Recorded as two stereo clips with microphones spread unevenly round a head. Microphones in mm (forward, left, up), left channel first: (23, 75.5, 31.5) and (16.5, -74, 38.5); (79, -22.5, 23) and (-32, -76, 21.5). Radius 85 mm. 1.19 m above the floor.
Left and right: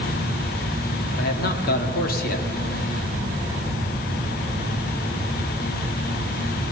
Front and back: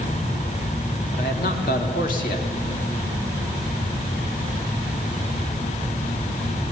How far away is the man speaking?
About 2 m.